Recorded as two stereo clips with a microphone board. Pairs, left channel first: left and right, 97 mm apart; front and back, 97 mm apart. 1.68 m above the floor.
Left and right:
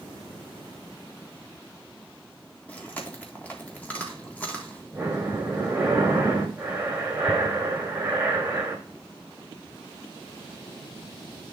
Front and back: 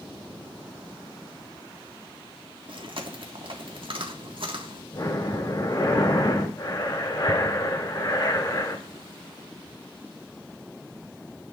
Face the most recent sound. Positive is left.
turn(degrees=-20)